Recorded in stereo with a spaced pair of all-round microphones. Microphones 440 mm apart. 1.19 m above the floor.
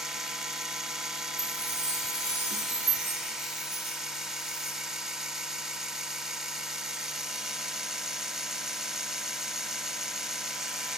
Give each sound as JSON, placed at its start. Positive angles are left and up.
{"t": 0.0, "sound": "a machine running", "side_deg": 0, "distance_m": 0.9}
{"t": 1.4, "sound": "a chime", "side_deg": -50, "distance_m": 8.0}